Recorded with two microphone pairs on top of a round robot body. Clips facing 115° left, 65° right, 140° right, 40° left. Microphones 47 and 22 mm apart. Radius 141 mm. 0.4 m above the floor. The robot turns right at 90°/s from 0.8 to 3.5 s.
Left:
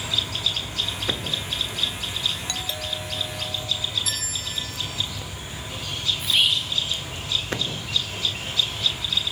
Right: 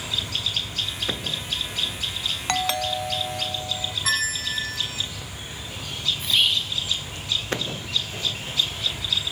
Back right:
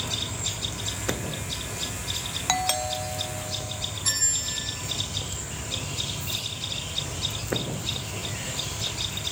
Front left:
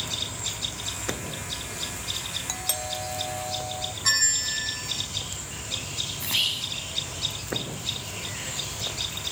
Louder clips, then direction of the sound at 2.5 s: Right 6 dB, back right 10 dB; 100° right.